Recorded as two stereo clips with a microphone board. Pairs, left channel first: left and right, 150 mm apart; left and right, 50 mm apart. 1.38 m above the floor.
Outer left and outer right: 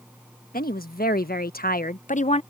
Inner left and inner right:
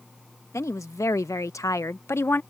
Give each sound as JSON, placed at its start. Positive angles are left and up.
{"t": 0.5, "sound": "a woman speaking", "side_deg": 75}